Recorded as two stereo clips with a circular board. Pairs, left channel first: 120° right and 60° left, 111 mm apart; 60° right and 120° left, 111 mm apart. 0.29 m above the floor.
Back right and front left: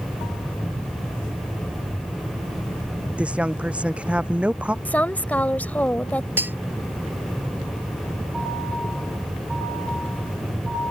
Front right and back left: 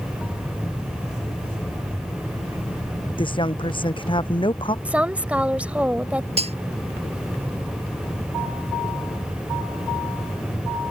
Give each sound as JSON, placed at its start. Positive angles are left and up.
{"t": 3.2, "sound": "a woman speaking", "azimuth_deg": -20}
{"t": 4.8, "sound": "a woman speaking", "azimuth_deg": 180}
{"t": 6.4, "sound": "cutlery clinking", "azimuth_deg": 130}